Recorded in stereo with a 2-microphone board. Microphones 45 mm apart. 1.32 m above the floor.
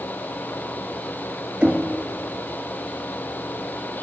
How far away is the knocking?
About 1.4 m.